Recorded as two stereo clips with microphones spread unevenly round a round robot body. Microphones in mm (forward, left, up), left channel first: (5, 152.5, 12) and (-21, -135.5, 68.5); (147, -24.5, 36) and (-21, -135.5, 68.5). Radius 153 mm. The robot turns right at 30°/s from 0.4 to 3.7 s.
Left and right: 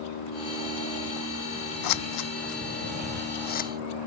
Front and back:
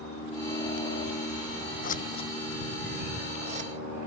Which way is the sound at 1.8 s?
95° left.